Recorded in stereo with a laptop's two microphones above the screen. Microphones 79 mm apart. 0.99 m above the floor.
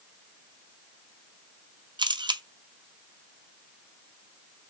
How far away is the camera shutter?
About 0.5 m.